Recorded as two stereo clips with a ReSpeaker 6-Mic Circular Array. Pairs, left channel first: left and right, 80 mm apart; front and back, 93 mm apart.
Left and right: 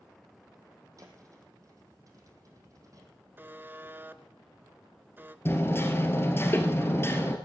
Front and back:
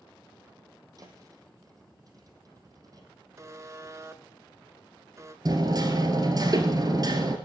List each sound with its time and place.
1.0 s a thud: 135° right, 2.5 m
3.4 s a buzzer: 140° right, 0.6 m
5.5 s hammering: 145° left, 1.7 m